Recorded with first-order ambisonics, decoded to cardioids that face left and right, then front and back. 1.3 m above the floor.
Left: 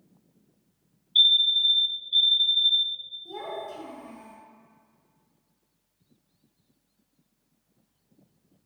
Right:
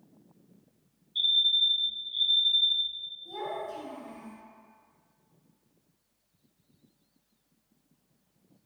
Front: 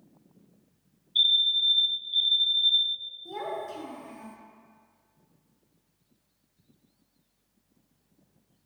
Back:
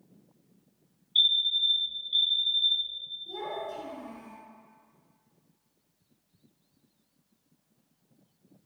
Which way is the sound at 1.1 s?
100° left.